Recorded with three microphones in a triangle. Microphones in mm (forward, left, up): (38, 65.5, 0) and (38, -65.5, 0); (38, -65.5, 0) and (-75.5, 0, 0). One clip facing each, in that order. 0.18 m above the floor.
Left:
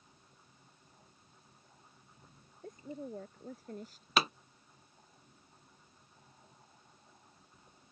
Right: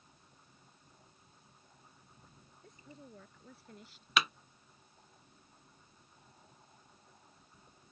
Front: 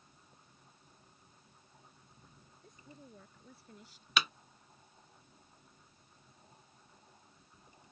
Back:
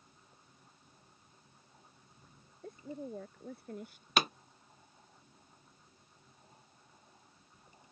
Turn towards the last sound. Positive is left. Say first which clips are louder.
# left 2 dB, back 4 dB
turn(degrees=130)